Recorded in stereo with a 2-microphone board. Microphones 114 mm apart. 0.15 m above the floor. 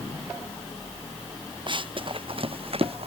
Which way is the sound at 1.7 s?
45° right (ahead or behind).